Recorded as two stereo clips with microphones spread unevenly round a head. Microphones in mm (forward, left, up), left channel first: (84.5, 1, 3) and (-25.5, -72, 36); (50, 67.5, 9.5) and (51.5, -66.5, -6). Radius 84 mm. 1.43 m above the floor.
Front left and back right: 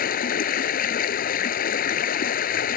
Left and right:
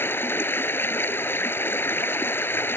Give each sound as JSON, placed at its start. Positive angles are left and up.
{"t": 0.0, "sound": "running water", "azimuth_deg": 20}